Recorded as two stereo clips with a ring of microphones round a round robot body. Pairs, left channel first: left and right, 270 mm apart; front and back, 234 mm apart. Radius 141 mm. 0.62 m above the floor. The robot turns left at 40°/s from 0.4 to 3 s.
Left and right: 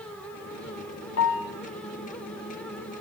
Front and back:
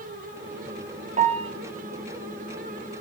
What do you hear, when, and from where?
1.2 s a piano: 125° left, 1.2 m; by 1.5 s 110° left, 1.2 m